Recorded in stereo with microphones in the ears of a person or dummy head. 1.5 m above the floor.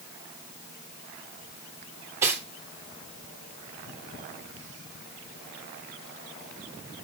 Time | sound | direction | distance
2.2 | cutlery clinking | 15° right (ahead or behind) | 3 m